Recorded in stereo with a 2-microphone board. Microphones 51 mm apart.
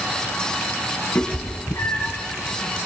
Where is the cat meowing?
75° left (ahead or behind), 3 m.